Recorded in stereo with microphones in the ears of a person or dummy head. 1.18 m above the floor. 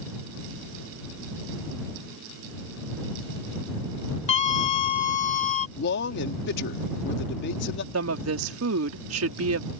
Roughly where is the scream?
Left.